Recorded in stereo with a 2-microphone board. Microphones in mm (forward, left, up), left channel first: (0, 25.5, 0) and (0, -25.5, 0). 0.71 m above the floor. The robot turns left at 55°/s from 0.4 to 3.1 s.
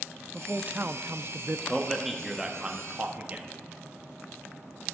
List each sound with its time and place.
0.3 s a man speaking: 30° right, 0.5 m; by 1.6 s 95° right, 0.5 m
1.7 s a man speaking: 15° left (ahead or behind), 1.2 m; by 3.5 s 30° right (ahead or behind), 1.2 m